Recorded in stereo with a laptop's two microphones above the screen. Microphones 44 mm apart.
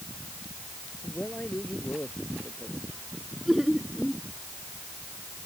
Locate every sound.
1.0 s a man speaking: 35° left (ahead or behind)
3.5 s laughter: centre (ahead or behind)